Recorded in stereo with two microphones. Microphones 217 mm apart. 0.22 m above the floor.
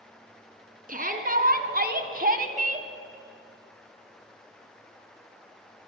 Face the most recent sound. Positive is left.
turn(degrees=-30)  # may be behind; listen again after turning